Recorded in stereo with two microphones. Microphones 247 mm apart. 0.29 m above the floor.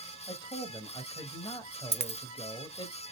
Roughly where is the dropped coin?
Right.